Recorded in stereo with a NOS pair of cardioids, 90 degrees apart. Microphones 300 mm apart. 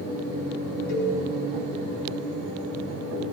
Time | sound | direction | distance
0.9 | a cowbell | 65° left | 4 m